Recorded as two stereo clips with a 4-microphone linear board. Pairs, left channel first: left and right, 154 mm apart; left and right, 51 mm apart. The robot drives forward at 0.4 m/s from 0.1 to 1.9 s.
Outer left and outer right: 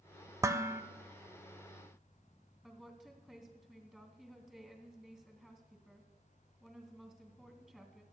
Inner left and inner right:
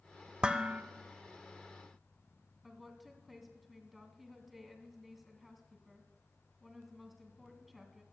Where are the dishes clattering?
20° right (ahead or behind), 0.5 m.